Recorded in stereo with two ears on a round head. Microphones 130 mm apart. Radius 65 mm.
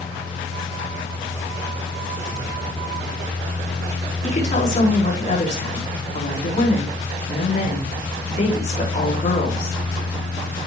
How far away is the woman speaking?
About 4 m.